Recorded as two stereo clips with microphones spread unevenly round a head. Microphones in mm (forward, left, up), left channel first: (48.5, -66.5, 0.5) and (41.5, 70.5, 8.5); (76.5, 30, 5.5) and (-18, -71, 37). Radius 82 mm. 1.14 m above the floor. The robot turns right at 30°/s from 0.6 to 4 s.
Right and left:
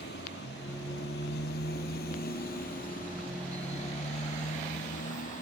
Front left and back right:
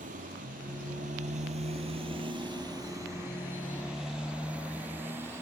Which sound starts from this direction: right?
A motorcycle, at 0.0 s.